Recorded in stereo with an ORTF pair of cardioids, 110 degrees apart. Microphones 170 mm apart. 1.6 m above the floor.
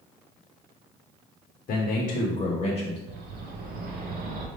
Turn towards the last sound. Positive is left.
turn(degrees=-65)